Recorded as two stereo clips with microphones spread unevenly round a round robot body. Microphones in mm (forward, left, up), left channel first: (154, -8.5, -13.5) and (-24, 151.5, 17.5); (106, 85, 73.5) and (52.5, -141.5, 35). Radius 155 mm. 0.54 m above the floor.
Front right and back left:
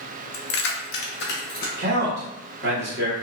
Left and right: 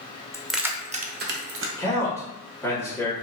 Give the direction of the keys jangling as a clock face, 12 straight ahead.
12 o'clock.